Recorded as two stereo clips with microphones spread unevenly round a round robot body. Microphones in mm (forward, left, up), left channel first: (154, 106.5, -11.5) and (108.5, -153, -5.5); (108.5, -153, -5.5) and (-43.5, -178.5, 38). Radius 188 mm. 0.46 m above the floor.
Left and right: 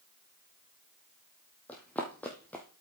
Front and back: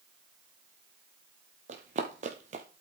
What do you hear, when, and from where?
1.7 s running footsteps: 165° left, 0.8 m